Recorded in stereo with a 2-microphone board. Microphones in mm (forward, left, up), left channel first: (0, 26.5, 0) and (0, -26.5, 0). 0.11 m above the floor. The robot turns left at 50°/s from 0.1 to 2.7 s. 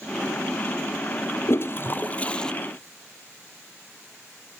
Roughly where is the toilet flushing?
Ahead left.